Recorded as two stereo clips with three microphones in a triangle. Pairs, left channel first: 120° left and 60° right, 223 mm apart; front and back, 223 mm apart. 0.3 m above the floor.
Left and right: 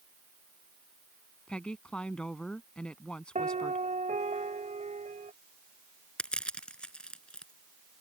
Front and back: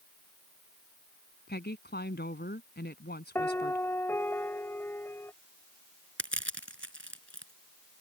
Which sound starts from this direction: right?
A piano, at 3.4 s.